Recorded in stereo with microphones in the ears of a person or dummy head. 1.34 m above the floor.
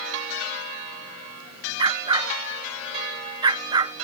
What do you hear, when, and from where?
1.8 s a dog barking: 25° right (ahead or behind)